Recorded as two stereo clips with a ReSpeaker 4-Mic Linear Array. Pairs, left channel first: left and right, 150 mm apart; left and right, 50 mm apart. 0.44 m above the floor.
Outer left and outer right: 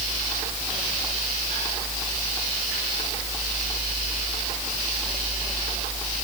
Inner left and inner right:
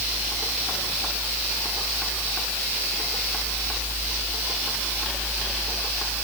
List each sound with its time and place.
Only background noise.